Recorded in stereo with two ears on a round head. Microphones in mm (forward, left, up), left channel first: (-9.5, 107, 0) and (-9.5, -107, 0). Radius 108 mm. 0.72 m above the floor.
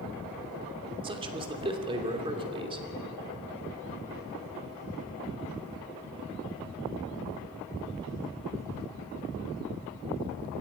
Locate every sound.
1.0 s a man speaking: 20° right (ahead or behind), 2.5 m